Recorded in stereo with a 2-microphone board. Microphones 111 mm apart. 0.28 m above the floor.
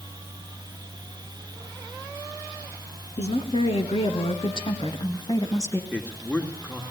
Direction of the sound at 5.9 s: 10° left (ahead or behind).